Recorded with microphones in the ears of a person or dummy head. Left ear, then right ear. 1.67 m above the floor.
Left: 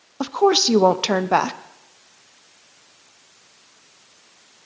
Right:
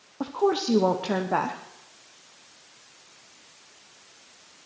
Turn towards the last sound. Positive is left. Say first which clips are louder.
# left 8 dB
turn(degrees=75)  # may be behind; listen again after turning